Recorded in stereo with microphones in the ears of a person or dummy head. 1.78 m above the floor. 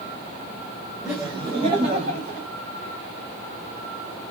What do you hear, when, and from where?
1.0 s laughter: 5° right (ahead or behind), 0.9 m; by 2.5 s 50° right (ahead or behind), 1.5 m